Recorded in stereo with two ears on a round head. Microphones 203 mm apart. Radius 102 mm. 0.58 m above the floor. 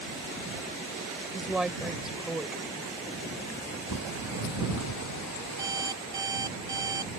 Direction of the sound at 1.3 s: Centre (ahead or behind).